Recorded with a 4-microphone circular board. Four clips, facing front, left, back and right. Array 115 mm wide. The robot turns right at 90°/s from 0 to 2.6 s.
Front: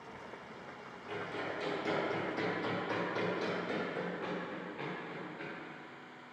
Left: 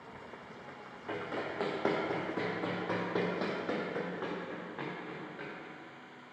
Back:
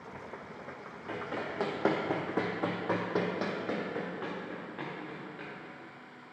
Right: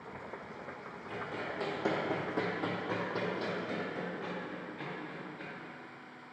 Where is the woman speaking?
I don't hear a woman speaking.